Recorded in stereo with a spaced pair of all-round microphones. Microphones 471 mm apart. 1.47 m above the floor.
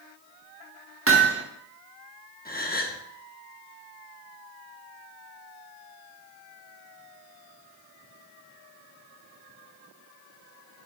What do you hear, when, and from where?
1.1 s hammering: 25° right (ahead or behind), 1.2 m
2.5 s a gasp: 20° left (ahead or behind), 1.1 m